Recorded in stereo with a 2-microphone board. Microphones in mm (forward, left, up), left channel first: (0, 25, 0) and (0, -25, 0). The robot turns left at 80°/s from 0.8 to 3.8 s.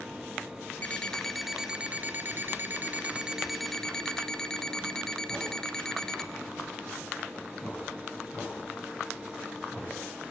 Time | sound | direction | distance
0.8 | an alarm clock | 45° left | 1.0 m